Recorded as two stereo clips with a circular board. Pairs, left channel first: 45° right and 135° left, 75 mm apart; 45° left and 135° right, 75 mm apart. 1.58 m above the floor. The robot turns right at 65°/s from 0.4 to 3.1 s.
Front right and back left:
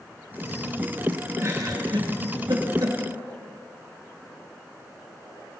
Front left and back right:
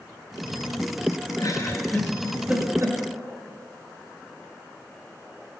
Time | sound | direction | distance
1.4 | a giggle | 80° left | 2 m